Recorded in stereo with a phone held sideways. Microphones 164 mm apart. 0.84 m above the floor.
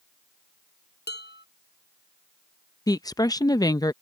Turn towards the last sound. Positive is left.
turn(degrees=25)  # may be behind; listen again after turning